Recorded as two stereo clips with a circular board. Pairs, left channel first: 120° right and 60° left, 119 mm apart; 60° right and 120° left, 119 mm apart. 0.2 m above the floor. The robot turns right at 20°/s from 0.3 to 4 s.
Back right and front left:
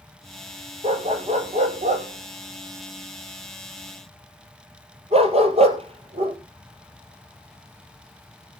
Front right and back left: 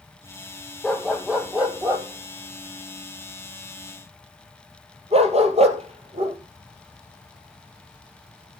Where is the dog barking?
30° left, 1.8 m; by 6.4 s 90° left, 1.8 m.